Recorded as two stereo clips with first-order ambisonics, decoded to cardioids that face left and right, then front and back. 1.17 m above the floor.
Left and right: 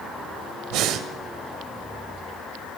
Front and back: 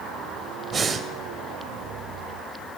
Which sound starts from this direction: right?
Breathing, at 0.7 s.